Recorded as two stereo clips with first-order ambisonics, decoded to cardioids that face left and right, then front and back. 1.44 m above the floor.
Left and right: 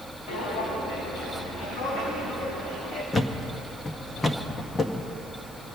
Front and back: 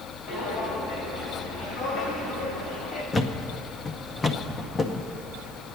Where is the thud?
45° left, 0.8 m.